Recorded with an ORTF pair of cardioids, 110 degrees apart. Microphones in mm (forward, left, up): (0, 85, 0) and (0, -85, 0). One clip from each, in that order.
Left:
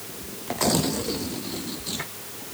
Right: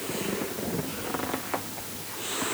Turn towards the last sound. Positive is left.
No sound to turn to.